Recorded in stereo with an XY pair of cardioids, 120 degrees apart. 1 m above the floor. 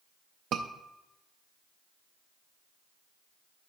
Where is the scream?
60° right, 0.5 m.